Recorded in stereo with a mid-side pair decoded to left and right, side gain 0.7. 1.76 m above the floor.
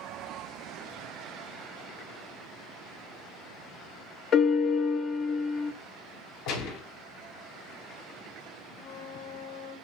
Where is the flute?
60° left, 1.5 m.